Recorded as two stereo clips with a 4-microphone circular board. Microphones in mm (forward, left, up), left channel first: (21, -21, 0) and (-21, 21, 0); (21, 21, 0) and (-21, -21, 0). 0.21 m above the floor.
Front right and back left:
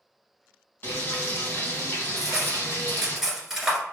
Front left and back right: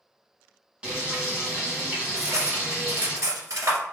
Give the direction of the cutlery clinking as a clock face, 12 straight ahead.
5 o'clock.